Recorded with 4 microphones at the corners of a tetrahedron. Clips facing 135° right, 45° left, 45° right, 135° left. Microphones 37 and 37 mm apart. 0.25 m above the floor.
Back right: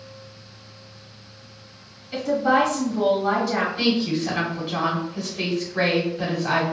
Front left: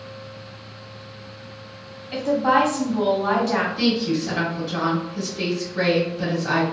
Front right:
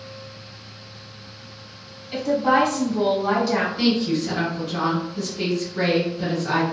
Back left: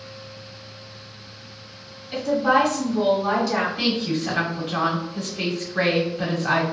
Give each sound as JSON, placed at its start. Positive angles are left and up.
{"t": 2.1, "sound": "a woman speaking", "azimuth_deg": 45, "distance_m": 1.4}
{"t": 3.8, "sound": "a woman speaking", "azimuth_deg": 170, "distance_m": 1.2}